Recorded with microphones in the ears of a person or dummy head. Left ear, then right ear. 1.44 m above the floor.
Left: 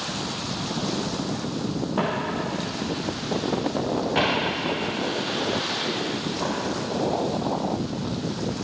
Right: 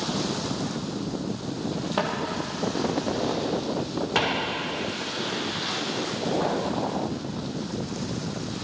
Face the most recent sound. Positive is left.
turn(degrees=-65)  # may be behind; listen again after turning